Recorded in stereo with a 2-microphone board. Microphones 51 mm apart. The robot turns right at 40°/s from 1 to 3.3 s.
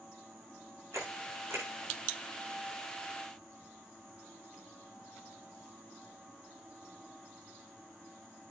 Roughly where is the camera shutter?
Right.